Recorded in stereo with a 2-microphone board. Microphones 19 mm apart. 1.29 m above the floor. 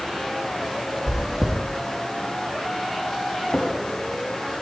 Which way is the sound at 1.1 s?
30° right (ahead or behind).